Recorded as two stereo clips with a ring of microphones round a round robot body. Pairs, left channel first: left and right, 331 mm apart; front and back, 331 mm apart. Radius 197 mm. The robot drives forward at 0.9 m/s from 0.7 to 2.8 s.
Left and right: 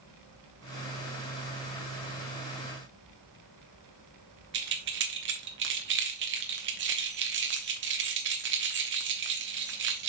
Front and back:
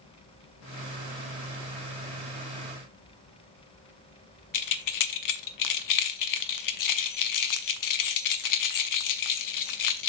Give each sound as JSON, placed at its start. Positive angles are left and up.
{"t": 4.5, "sound": "keys jangling", "azimuth_deg": -30, "distance_m": 0.9}